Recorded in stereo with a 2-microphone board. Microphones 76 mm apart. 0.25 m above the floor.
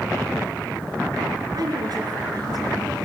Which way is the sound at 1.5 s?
60° right (ahead or behind).